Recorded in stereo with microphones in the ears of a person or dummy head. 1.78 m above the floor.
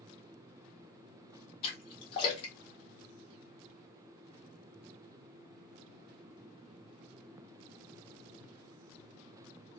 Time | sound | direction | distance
1.6 | a splash | 35° left (ahead or behind) | 1.3 m